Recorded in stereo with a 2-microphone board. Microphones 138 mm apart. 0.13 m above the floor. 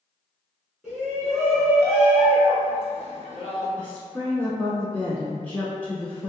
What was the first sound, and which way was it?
A shout, centre (ahead or behind).